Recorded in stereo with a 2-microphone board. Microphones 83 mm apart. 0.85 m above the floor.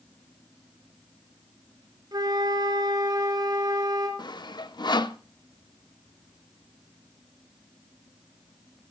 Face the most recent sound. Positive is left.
turn(degrees=60)  # may be behind; listen again after turning